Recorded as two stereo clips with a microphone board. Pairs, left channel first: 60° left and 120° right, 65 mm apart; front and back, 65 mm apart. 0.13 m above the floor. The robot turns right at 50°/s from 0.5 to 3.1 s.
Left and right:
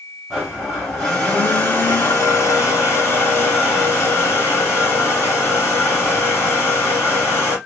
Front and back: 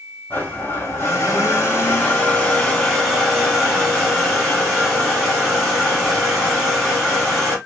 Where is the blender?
35° right, 1.9 m; by 7.6 s 95° left, 1.9 m.